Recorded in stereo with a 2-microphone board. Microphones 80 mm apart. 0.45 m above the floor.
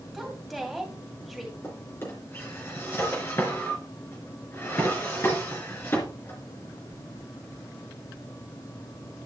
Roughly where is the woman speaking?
Centre.